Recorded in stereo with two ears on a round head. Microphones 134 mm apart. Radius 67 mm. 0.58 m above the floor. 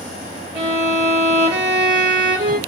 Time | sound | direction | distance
0.6 | a violin | 50° right (ahead or behind) | 1.8 m